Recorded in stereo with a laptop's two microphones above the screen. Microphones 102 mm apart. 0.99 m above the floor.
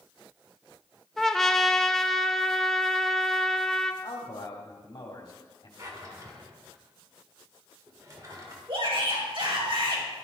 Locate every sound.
1.2 s a trumpet: 5° left (ahead or behind), 0.7 m
4.0 s a man speaking: 50° left (ahead or behind), 2.5 m
5.8 s a drawer: 35° right (ahead or behind), 1.6 m
8.7 s a shout: 60° right (ahead or behind), 4.5 m